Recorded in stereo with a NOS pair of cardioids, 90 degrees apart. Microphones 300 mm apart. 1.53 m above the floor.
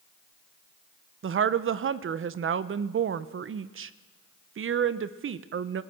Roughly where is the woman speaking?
Ahead right.